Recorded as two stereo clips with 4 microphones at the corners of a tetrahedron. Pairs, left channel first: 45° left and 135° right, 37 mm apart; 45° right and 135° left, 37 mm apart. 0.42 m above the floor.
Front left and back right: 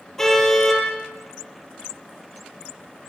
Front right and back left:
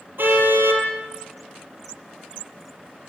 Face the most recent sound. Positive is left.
turn(degrees=125)